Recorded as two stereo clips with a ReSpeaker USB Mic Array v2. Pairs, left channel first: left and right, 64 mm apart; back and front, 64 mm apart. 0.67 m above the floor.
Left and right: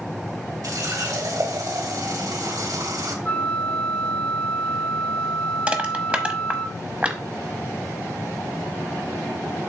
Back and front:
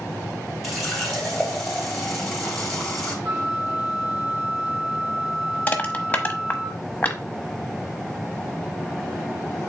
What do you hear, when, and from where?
0.6 s a running tap: 90° right, 2.5 m
3.2 s a flute: 25° left, 1.9 m
5.7 s crushing: 140° right, 1.0 m